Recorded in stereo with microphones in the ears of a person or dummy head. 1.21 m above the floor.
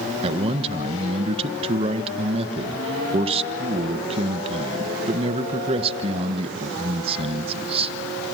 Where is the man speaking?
35° right (ahead or behind), 1.4 m.